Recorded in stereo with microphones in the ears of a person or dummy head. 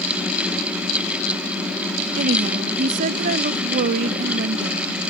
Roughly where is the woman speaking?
Right.